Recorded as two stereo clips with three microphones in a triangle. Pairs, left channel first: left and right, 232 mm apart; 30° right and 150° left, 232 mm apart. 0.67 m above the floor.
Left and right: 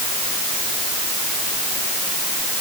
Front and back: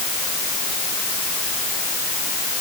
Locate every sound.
Only background noise.